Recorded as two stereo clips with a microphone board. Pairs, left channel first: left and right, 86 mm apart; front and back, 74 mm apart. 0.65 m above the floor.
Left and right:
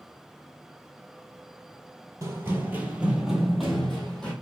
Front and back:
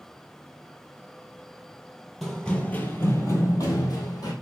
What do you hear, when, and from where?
2.2 s running footsteps: 90° right, 0.7 m; by 4.3 s 10° left, 1.2 m